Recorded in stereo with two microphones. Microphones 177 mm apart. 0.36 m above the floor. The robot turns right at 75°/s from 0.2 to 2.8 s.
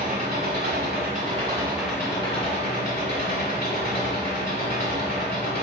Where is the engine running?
125° right, 1.1 m; by 5.6 s 70° left, 1.1 m.